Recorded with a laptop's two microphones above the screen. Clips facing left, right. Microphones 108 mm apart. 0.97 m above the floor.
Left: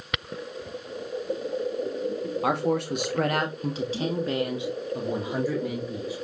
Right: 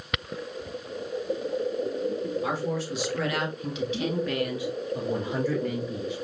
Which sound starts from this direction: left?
A man speaking, at 2.4 s.